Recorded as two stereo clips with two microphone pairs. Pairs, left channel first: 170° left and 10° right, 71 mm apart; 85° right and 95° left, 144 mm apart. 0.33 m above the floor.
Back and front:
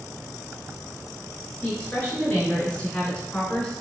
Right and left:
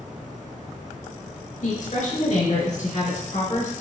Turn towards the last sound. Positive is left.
turn(degrees=-115)